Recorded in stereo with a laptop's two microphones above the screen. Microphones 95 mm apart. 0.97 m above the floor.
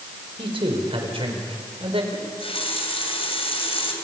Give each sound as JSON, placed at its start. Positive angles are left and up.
{"t": 0.4, "sound": "a man speaking", "side_deg": -70, "distance_m": 4.0}
{"t": 2.1, "sound": "a running tap", "side_deg": 85, "distance_m": 3.0}